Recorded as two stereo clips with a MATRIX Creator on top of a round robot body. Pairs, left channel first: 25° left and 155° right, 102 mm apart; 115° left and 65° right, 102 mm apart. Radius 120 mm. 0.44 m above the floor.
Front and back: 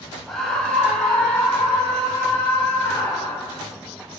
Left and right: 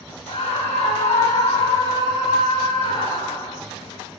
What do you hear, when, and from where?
0.3 s a scream: 110° left, 3 m; by 3.6 s 95° left, 6.5 m